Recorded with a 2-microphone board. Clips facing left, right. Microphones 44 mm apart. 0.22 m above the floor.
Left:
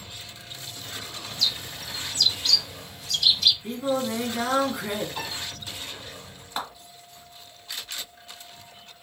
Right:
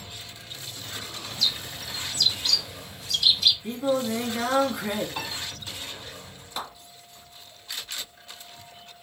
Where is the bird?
5° right (ahead or behind), 0.6 m.